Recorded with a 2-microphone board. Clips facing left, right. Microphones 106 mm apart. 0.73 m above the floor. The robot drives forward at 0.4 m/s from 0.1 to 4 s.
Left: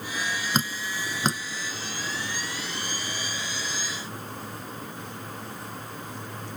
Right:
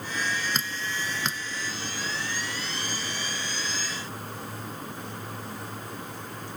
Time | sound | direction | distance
0.5 | dripping | 40° left (ahead or behind) | ?